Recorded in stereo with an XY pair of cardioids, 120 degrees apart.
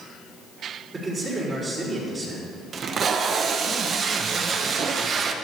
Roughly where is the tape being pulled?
Ahead right.